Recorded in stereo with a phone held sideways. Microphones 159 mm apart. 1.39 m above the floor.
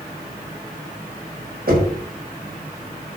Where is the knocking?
75° right (ahead or behind), 4.5 m.